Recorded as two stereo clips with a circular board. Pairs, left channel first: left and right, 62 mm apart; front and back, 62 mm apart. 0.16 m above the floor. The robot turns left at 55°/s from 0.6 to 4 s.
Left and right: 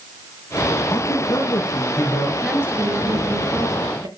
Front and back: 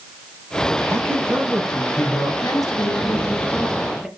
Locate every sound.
0.9 s a man speaking: 130° left, 5.5 m; by 2.3 s 55° left, 5.5 m
2.4 s a woman speaking: 5° right, 4 m; by 4.1 s 90° right, 4 m